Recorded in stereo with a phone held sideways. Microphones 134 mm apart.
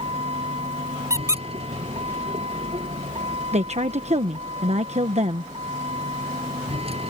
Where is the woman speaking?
55° right (ahead or behind).